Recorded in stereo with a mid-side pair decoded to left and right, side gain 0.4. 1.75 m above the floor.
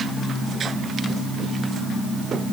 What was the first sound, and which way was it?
Only background noise.